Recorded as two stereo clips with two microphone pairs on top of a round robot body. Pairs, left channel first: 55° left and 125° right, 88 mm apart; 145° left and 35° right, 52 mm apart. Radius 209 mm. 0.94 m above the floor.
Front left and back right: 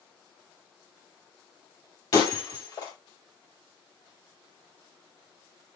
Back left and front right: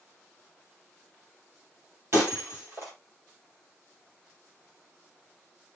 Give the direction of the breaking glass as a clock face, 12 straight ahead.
12 o'clock.